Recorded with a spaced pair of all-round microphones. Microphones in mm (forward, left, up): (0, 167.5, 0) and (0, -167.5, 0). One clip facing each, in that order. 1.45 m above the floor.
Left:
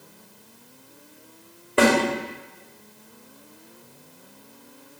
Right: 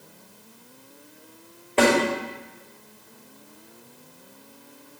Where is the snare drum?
20° left (ahead or behind), 2.5 m.